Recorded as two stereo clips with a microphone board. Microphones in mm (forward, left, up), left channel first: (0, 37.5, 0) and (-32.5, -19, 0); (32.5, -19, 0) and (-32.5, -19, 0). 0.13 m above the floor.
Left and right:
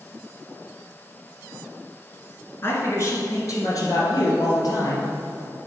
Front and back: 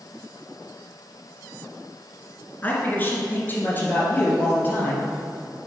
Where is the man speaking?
45° left, 1.8 m; by 5.0 s 60° left, 3.5 m.